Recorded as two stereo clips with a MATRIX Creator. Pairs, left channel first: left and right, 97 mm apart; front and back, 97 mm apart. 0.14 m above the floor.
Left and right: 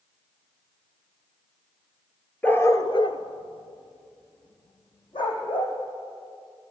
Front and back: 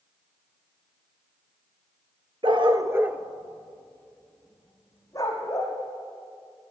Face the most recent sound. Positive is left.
turn(degrees=55)